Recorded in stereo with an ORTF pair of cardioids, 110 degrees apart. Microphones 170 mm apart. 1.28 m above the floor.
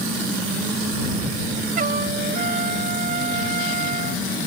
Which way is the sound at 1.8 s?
55° right.